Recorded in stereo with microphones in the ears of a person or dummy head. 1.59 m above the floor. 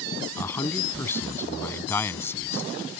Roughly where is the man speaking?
Centre.